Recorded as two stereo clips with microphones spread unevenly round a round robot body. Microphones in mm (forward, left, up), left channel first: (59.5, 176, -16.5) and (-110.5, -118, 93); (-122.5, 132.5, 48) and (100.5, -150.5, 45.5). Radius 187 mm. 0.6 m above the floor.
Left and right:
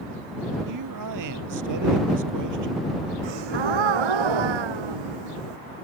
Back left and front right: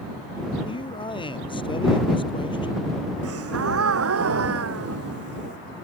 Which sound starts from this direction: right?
A gasp, at 3.2 s.